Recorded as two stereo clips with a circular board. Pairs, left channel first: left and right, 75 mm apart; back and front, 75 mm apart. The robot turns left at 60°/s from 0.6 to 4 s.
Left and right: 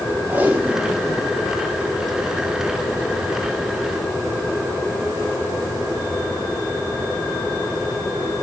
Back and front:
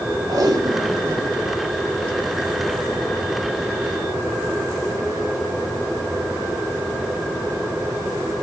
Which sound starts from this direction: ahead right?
Tape being pulled, at 0.3 s.